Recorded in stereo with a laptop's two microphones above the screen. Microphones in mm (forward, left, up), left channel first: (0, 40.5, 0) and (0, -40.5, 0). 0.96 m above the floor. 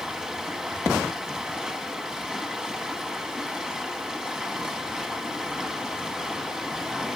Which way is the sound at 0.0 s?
10° right (ahead or behind).